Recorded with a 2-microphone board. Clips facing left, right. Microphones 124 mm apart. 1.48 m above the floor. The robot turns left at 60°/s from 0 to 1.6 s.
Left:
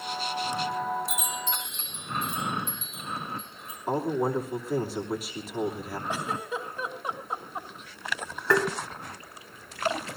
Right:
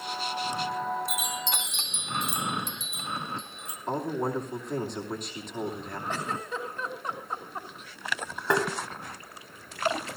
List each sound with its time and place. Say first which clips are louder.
1.1 s a chime: even; 60° right, 2.5 m; by 3.8 s 90° right, 2.5 m
3.9 s a man speaking: left 3 dB; 5° left (ahead or behind), 2.5 m
6.1 s a giggle: left 1 dB; 10° left (ahead or behind), 3 m
8.5 s tapping: left 2 dB; 20° right (ahead or behind), 2.5 m